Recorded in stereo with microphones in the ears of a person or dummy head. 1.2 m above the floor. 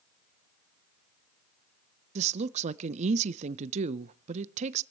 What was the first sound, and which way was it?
A woman speaking, 35° right (ahead or behind).